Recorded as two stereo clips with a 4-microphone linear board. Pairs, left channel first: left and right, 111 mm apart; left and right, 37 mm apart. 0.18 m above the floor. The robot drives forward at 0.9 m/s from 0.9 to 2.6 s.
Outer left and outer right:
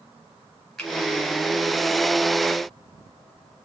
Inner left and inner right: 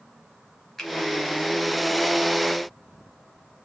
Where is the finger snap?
5° left (ahead or behind), 2.0 m.